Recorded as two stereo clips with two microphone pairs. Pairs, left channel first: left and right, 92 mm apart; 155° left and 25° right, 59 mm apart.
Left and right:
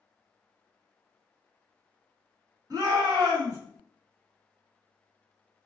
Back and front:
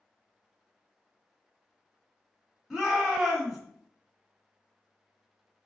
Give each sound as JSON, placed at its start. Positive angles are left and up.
{"t": 2.7, "sound": "a shout", "azimuth_deg": -120, "distance_m": 2.0}